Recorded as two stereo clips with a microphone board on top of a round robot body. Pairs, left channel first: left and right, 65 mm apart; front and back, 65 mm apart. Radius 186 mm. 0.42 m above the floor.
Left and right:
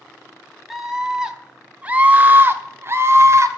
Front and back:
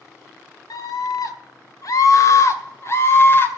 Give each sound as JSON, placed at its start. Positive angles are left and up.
{"t": 0.7, "sound": "a scream", "azimuth_deg": -5, "distance_m": 2.0}